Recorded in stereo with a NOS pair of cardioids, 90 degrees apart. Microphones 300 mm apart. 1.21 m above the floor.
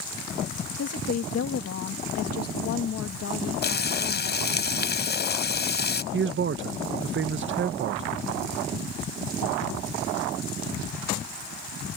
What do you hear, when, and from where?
0.8 s a woman speaking: 55° left
3.6 s frying: 35° left
6.1 s a man speaking: 40° right